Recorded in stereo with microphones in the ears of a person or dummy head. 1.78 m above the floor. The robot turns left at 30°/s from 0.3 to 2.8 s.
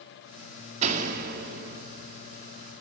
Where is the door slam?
45° right, 2 m; by 1.8 s 75° right, 2 m.